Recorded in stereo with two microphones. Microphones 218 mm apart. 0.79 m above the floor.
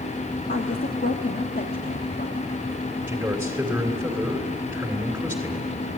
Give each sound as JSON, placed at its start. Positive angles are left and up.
{"t": 0.5, "sound": "a woman speaking", "side_deg": 50, "distance_m": 1.3}
{"t": 3.1, "sound": "a man speaking", "side_deg": -10, "distance_m": 2.5}